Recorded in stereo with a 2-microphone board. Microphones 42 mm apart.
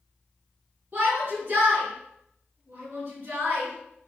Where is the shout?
40° right (ahead or behind), 4.5 m.